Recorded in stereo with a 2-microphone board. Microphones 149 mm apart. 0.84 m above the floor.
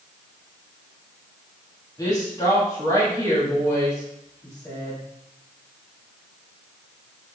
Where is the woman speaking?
25° left (ahead or behind), 1.7 m.